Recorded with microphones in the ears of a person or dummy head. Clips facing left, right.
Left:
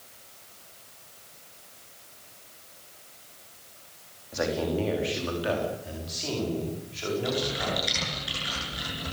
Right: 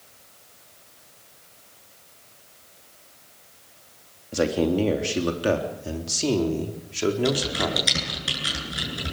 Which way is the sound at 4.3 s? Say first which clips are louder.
Right 6 dB; 50° right (ahead or behind).